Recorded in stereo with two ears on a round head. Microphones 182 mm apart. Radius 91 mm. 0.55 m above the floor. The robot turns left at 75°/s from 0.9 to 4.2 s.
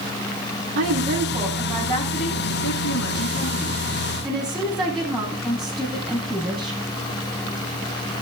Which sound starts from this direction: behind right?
A woman speaking, at 0.8 s.